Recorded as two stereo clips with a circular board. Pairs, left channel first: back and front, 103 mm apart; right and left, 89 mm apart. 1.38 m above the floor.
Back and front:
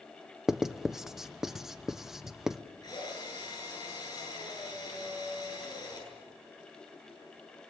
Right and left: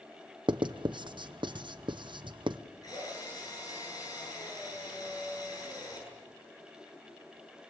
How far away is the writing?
About 0.8 m.